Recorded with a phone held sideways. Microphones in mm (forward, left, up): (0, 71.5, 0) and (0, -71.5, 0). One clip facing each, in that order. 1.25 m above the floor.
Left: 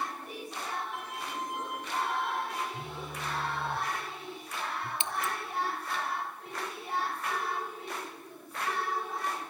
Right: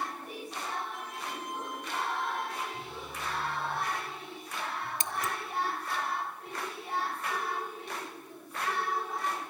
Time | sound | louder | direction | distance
0.9 | a violin | left 2 dB | 70° left (ahead or behind) | 8 m
2.7 | a phone buzzing | left 1 dB | 55° left (ahead or behind) | 1.9 m
5.0 | scissors | even | 40° right (ahead or behind) | 0.9 m